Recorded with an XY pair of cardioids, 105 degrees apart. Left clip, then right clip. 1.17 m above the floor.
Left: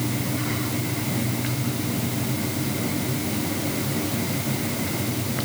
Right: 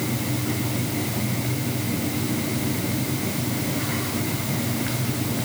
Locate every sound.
Only background noise.